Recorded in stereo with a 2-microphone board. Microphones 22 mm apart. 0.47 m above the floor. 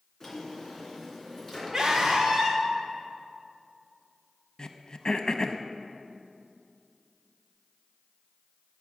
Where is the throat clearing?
40° left (ahead or behind), 0.5 m.